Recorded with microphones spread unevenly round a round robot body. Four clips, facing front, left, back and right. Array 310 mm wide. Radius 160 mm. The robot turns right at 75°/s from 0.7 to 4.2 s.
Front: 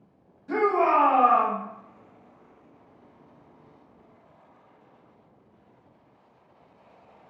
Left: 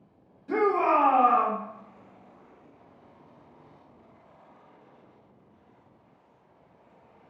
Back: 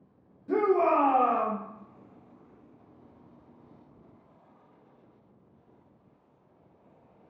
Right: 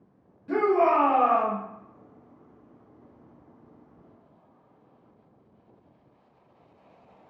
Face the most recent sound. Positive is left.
turn(degrees=80)